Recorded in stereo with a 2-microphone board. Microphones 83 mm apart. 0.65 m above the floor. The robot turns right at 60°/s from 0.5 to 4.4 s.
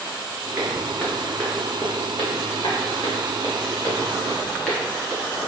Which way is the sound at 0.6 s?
10° right (ahead or behind).